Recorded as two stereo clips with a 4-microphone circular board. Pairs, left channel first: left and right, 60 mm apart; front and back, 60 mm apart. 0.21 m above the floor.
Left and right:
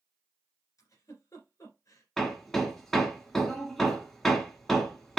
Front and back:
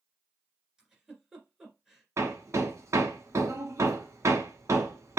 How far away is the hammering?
About 1.2 m.